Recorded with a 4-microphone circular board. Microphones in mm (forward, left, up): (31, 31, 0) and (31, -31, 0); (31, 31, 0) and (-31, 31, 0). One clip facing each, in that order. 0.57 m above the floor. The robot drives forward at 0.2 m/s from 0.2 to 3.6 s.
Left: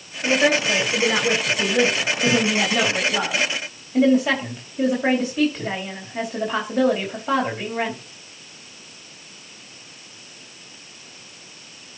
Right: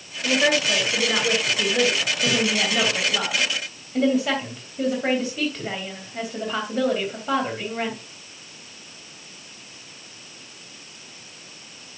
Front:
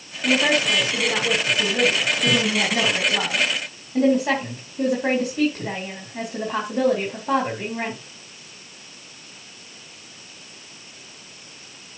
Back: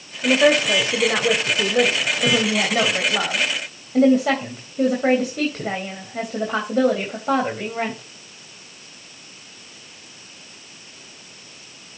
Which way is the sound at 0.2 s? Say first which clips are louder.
Left 2 dB, back 4 dB; 170° left.